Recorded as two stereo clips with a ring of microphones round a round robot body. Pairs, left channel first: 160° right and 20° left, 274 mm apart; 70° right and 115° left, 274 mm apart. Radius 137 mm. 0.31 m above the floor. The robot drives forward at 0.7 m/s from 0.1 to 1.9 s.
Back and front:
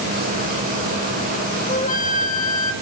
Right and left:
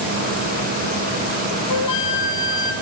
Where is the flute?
90° right, 1.7 m; by 2.7 s 95° right, 1.7 m.